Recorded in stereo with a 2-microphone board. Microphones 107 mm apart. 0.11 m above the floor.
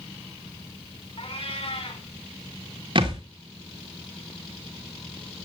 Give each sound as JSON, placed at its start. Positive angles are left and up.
{"t": 1.2, "sound": "a cat meowing", "side_deg": 60, "distance_m": 4.5}
{"t": 3.0, "sound": "a thud", "side_deg": -55, "distance_m": 3.0}